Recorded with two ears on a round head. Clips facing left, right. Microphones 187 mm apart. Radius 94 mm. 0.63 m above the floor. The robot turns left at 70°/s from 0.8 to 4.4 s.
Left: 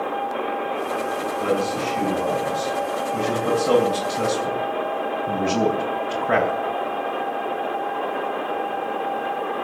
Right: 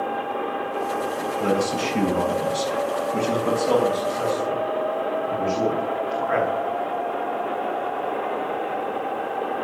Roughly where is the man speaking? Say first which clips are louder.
Right 1 dB; ahead right.